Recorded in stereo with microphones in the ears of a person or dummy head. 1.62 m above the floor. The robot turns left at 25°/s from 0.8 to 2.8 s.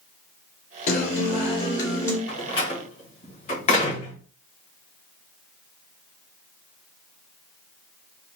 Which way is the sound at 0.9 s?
50° left.